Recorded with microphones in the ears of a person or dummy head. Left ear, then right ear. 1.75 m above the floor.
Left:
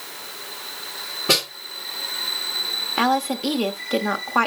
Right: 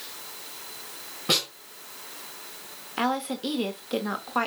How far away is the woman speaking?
About 1.2 m.